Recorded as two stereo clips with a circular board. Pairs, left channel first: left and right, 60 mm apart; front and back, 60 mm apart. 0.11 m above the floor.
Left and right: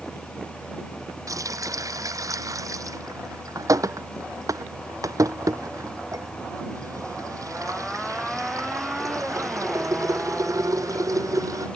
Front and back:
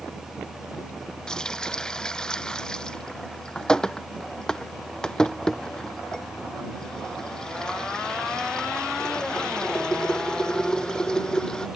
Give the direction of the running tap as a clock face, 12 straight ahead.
3 o'clock.